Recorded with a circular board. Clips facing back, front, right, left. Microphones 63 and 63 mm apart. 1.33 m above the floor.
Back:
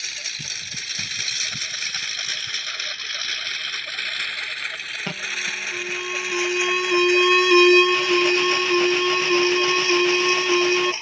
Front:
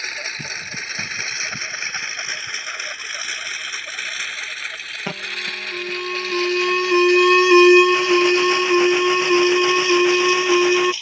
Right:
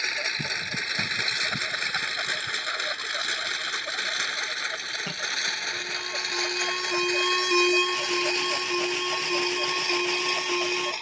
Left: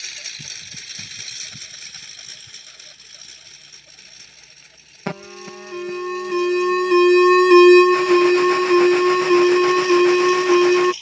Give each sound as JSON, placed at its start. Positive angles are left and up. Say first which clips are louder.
{"t": 0.0, "sound": "a lawn mower", "louder": "front 6 dB, right 9 dB", "azimuth_deg": -50}
{"t": 5.1, "sound": "an alarm", "louder": "front 1 dB, left 4 dB", "azimuth_deg": 70}